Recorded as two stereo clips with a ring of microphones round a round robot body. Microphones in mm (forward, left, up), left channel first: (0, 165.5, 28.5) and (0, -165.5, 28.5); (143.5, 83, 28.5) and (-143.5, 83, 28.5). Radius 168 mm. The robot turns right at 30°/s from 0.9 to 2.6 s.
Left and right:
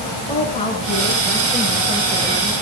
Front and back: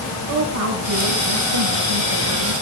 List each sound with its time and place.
0.3 s a woman speaking: 160° left, 4.5 m; by 2.5 s 150° right, 4.5 m